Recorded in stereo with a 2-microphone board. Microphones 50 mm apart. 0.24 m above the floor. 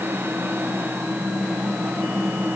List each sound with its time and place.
Only background noise.